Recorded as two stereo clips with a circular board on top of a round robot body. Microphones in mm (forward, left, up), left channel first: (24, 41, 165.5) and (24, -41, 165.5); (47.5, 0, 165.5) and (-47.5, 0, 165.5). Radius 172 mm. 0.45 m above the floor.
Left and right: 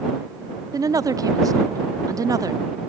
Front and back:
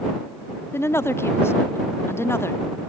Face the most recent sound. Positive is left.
turn(degrees=-60)